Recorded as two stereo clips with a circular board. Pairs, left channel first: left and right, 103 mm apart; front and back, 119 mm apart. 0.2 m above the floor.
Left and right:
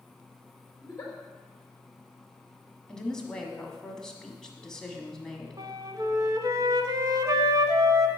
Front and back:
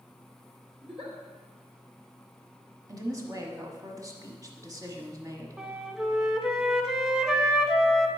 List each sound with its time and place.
0.8 s a giggle: 155° left, 3 m
2.9 s a woman speaking: 165° left, 1.1 m
5.6 s a flute: 100° right, 0.6 m